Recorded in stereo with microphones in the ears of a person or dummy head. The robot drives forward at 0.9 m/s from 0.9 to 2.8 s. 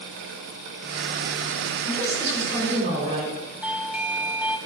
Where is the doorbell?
5° right (ahead or behind), 0.5 m.